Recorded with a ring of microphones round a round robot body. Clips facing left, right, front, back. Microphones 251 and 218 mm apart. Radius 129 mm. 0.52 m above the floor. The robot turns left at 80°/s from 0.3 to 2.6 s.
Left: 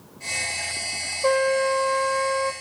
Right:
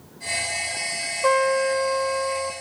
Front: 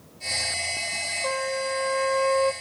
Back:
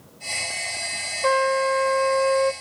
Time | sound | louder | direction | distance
1.2 | a trumpet | even, back 7 dB | 155° right | 0.8 m